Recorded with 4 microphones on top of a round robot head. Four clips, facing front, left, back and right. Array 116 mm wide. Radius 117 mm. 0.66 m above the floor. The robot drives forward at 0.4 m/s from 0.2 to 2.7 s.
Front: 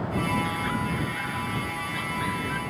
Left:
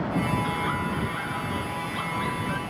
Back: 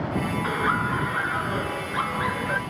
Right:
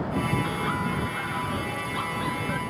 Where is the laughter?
170° right.